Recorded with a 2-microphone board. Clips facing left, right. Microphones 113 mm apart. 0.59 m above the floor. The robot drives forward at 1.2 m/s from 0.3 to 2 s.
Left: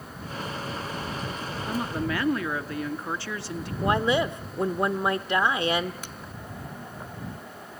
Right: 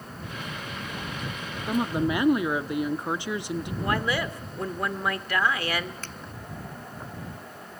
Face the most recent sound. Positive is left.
turn(degrees=15)  # may be behind; listen again after turning